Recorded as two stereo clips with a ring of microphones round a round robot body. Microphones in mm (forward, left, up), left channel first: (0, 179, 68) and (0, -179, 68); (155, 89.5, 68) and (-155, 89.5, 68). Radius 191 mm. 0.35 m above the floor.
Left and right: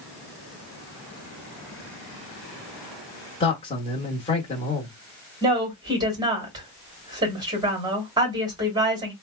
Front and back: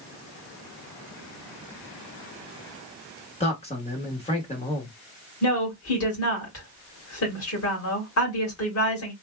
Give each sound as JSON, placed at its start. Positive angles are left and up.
{"t": 3.4, "sound": "a man speaking", "azimuth_deg": 35, "distance_m": 1.1}
{"t": 5.4, "sound": "a woman speaking", "azimuth_deg": -15, "distance_m": 2.0}